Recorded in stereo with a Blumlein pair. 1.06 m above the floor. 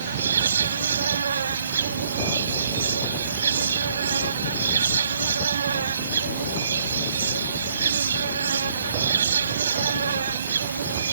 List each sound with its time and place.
0.0 s an insect: 70° right